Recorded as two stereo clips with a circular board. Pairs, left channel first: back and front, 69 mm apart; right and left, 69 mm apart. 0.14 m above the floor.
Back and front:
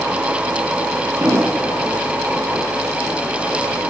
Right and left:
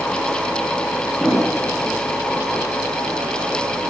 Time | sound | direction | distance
1.2 | an explosion | 10° right | 5.5 m